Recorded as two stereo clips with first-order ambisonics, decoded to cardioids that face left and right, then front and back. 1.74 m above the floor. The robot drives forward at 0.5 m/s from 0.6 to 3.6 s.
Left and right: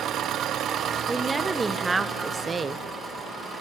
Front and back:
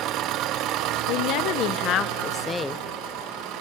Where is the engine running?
140° right, 0.9 m; by 3.6 s 165° right, 2 m.